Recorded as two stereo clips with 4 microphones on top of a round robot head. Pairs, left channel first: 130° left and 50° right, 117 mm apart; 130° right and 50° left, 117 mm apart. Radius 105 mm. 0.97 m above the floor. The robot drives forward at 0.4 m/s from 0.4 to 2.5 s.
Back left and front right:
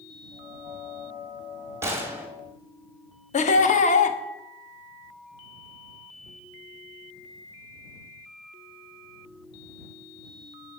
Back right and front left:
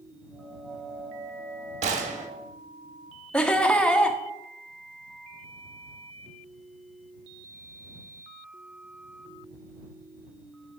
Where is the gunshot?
20° left, 1.1 m; by 2.3 s 25° left, 0.9 m.